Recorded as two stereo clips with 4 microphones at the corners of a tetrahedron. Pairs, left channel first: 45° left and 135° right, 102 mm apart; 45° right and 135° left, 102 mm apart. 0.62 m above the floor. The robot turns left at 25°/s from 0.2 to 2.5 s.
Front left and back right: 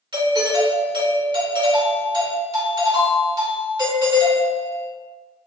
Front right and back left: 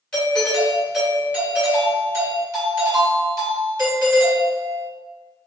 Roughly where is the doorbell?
Behind right.